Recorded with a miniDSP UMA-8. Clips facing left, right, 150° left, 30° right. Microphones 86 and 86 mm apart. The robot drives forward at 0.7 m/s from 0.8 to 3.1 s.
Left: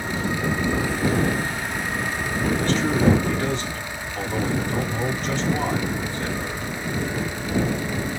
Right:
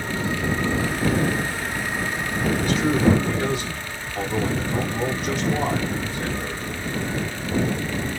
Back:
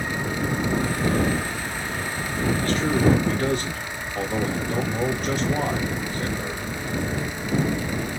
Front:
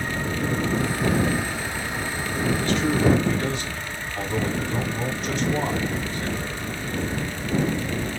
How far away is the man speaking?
About 1.8 m.